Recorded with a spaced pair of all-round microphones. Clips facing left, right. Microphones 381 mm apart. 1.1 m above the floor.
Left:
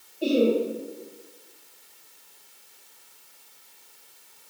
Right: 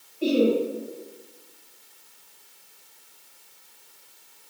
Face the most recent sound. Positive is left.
turn(degrees=-15)  # may be behind; listen again after turning